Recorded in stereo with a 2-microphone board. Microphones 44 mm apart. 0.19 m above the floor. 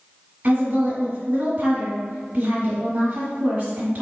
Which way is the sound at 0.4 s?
35° right (ahead or behind).